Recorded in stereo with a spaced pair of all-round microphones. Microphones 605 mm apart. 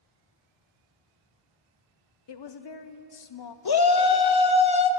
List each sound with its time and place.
2.3 s a woman speaking: 45° left (ahead or behind), 0.5 m
3.6 s a shout: 40° left (ahead or behind), 0.5 m